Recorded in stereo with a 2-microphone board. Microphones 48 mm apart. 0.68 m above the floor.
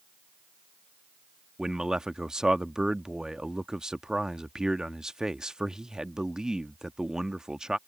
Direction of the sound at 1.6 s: 15° right (ahead or behind).